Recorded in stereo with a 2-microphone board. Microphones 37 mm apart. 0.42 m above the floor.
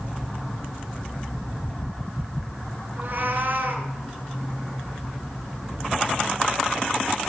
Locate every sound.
3.0 s a cat meowing: 55° right (ahead or behind), 2 m